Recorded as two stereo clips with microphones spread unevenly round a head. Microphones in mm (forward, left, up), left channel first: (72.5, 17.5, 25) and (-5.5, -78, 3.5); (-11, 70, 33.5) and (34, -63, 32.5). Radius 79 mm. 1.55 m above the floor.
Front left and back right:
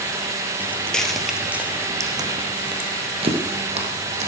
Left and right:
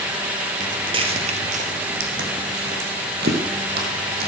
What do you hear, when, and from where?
0.6 s footsteps: 15° right, 2.5 m; by 4.3 s 100° right, 4 m